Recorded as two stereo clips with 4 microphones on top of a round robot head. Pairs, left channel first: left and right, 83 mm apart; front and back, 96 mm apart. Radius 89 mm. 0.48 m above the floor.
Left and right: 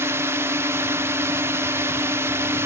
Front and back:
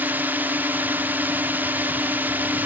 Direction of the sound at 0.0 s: 120° right.